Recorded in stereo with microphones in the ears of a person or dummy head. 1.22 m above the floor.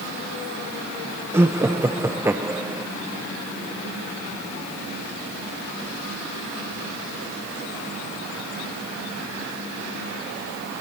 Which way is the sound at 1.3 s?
15° right (ahead or behind).